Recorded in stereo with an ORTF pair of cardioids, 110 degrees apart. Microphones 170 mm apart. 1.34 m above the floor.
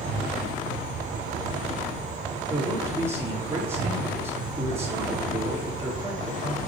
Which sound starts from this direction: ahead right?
An insect, at 0.0 s.